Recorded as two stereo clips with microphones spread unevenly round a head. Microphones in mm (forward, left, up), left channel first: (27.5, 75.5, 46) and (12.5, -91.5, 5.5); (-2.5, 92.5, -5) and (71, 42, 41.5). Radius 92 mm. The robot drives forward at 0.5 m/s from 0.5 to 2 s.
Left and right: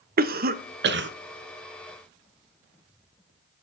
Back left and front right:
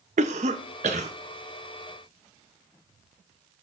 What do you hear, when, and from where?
0.2 s a cough: 65° right, 0.7 m; by 1.1 s 90° right, 0.6 m